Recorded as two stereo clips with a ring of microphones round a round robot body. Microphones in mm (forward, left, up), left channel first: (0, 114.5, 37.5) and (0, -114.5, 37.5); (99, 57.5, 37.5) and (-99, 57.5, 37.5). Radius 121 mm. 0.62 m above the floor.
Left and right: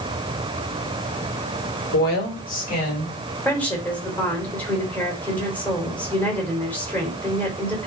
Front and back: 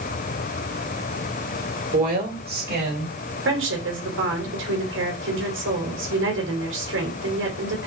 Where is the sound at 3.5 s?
175° left, 3.5 m.